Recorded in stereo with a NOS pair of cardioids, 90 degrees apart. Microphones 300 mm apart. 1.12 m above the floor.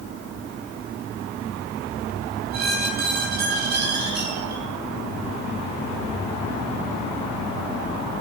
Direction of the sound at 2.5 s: 65° right.